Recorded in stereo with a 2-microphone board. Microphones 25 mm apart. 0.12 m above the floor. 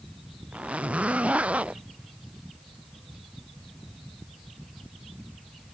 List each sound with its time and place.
0.5 s a zipper: 55° right (ahead or behind)